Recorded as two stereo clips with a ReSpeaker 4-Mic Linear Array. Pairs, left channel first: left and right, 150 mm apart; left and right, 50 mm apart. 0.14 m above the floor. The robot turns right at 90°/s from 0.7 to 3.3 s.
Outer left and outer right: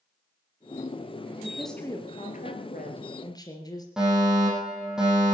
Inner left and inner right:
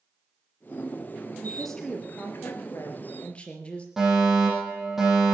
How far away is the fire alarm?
About 8.5 m.